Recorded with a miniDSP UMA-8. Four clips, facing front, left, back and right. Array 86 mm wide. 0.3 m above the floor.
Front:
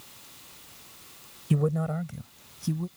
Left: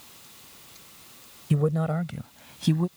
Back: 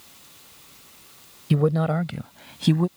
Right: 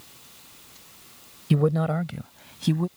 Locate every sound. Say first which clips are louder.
1.5 s a man speaking: right 3 dB, back 6 dB; 140° right; by 2.9 s straight behind